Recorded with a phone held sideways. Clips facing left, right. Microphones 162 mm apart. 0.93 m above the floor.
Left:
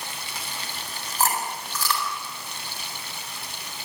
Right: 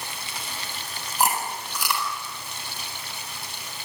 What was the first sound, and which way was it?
Chewing, 15° right (ahead or behind).